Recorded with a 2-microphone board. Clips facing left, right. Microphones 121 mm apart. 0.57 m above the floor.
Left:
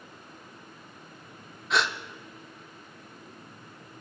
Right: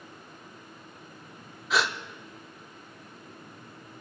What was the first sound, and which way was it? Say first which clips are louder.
A gasp: even; centre (ahead or behind).